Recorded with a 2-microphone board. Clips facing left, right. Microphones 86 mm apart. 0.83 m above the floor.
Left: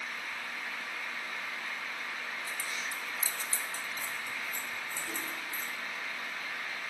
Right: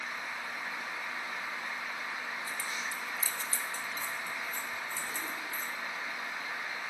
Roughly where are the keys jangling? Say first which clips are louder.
Right 1 dB; right.